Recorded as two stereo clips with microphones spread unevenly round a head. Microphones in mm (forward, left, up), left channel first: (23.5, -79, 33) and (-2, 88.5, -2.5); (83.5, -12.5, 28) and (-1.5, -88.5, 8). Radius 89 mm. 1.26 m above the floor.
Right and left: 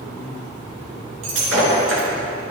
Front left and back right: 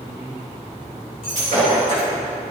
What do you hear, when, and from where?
1.2 s breaking glass: 95° left, 3 m